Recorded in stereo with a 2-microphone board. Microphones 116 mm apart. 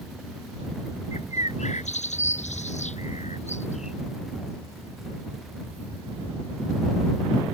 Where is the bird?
85° left.